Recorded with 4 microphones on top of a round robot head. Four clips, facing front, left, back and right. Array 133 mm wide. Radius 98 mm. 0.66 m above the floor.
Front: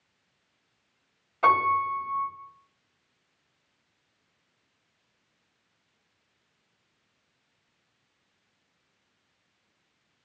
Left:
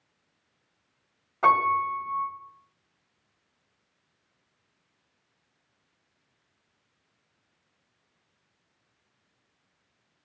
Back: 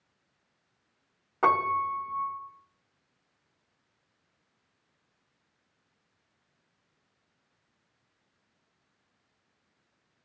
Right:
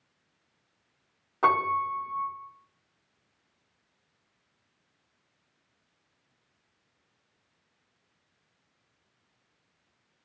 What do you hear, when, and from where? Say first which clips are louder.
1.4 s a piano: left 3 dB, front 3 dB; 155° right, 1.8 m